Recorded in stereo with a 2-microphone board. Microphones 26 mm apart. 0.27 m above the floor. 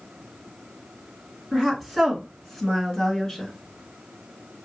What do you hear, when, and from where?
1.5 s a woman speaking: 10° right (ahead or behind), 3 m; by 3.5 s 15° left (ahead or behind), 1.7 m